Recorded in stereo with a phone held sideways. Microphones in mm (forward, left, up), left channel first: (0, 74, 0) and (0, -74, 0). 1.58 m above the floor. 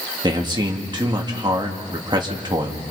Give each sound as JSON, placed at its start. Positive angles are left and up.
{"t": 0.2, "sound": "a man speaking", "side_deg": -30, "distance_m": 2.5}